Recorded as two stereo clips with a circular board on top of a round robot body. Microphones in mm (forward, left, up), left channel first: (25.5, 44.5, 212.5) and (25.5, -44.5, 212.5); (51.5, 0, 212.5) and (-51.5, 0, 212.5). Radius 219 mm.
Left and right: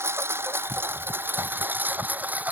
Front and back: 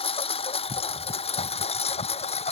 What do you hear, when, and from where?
0.0 s a lawn mower: 25° right; by 2.5 s 15° right